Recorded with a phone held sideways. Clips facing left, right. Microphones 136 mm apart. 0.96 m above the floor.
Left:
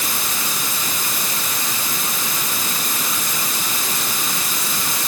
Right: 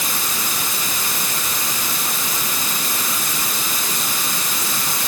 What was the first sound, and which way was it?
Only background noise.